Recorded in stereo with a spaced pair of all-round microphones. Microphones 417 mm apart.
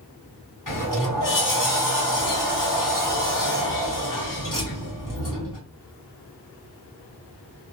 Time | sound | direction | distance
0.7 | a sliding door | 50° left (ahead or behind) | 1.1 m